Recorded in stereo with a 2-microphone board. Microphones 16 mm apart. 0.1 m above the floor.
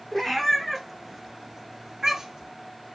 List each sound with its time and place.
0.1 s a cat meowing: 25° left (ahead or behind), 0.9 m; by 2.5 s 45° right (ahead or behind), 1.2 m